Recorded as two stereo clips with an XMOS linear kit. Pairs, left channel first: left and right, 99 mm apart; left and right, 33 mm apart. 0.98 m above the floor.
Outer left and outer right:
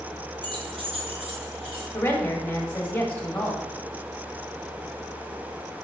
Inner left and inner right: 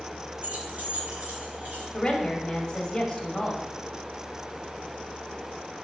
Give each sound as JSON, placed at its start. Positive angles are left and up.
{"t": 0.4, "sound": "keys jangling", "side_deg": -50, "distance_m": 0.7}
{"t": 1.9, "sound": "a woman speaking", "side_deg": 20, "distance_m": 1.3}